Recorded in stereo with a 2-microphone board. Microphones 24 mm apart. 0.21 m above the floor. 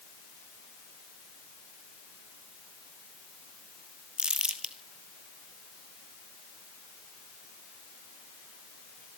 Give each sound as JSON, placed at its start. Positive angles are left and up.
{"t": 4.2, "sound": "crumpling", "side_deg": -40, "distance_m": 1.3}